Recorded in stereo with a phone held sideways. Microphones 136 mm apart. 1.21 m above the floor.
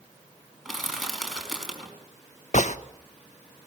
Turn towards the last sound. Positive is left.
turn(degrees=60)  # may be behind; listen again after turning